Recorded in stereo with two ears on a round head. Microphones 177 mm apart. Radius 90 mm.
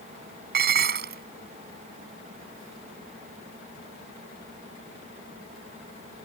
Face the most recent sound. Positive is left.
turn(degrees=-50)  # may be behind; listen again after turning